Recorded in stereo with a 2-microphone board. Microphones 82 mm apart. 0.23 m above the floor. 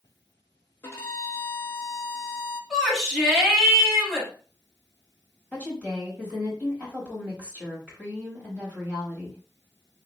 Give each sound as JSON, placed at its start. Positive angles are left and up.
{"t": 0.8, "sound": "a violin", "side_deg": 30, "distance_m": 0.8}
{"t": 2.7, "sound": "a shout", "side_deg": -5, "distance_m": 1.2}
{"t": 5.5, "sound": "a woman speaking", "side_deg": 15, "distance_m": 1.2}